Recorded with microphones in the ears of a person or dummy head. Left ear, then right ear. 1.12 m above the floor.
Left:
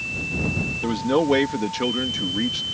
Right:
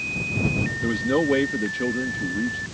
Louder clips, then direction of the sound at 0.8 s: Left 2 dB; 15° left (ahead or behind).